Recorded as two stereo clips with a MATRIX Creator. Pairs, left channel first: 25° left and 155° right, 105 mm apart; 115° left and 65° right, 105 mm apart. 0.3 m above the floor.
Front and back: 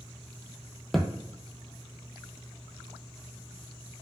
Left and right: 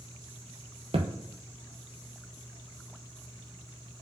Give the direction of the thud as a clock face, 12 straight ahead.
2 o'clock.